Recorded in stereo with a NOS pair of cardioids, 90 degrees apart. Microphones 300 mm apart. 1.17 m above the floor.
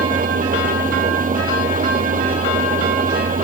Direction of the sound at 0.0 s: 30° right.